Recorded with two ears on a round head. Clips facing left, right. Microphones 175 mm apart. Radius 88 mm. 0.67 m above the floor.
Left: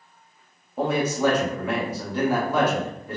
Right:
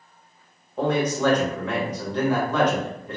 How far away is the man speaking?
About 0.8 m.